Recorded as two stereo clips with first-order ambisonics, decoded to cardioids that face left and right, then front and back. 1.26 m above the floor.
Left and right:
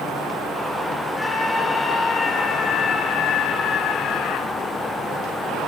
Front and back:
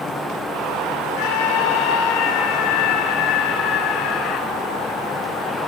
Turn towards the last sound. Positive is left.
turn(degrees=50)